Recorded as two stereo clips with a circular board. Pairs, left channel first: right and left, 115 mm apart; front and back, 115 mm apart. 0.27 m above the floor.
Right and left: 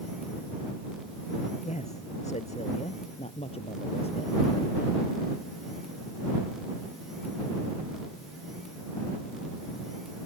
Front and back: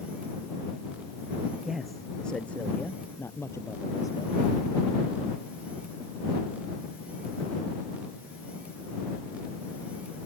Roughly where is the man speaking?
Right.